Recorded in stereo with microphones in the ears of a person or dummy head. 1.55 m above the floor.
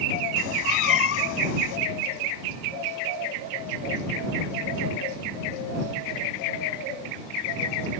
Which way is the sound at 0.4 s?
75° left (ahead or behind).